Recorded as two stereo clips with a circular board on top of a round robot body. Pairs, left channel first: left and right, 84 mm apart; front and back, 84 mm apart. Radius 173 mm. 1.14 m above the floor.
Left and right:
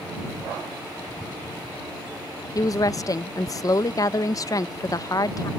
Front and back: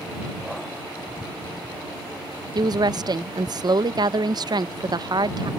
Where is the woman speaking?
140° left.